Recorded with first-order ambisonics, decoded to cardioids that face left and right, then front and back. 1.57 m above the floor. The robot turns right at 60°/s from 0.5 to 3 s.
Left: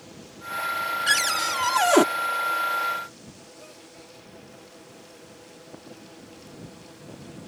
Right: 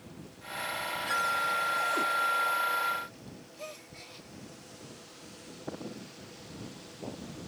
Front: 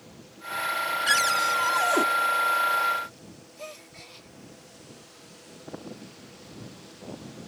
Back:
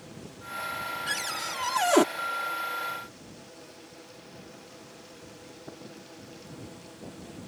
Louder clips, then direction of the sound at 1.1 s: Left 5 dB, front 12 dB; 60° left.